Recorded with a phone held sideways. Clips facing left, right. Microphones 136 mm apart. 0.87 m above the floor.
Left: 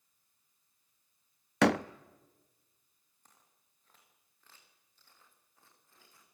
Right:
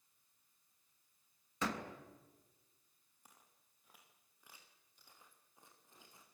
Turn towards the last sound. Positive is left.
turn(degrees=-20)  # may be behind; listen again after turning